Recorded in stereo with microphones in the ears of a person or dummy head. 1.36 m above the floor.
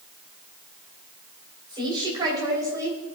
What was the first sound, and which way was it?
A woman speaking, 25° right (ahead or behind).